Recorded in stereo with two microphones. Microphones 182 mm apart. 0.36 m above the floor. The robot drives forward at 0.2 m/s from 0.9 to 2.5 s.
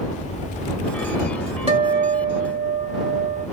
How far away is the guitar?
About 1.2 m.